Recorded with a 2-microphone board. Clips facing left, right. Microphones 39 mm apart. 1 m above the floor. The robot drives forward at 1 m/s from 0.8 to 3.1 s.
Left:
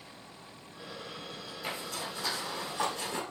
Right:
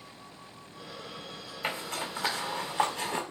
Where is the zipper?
50° right (ahead or behind), 4 m; by 3.2 s 40° right (ahead or behind), 5 m.